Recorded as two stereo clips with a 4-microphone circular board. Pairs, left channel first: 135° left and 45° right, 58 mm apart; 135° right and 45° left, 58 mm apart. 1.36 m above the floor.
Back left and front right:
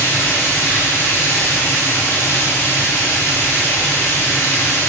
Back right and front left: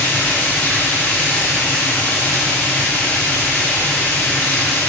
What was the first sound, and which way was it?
Running water, 170° left.